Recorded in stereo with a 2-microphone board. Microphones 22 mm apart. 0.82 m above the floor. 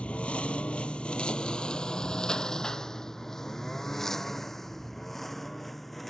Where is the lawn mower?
80° left; by 6.1 s 10° left (ahead or behind).